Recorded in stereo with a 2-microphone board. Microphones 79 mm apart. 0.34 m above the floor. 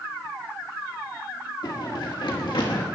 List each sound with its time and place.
1.6 s running footsteps: 70° left (ahead or behind), 4.5 m; by 2.9 s 80° left, 5 m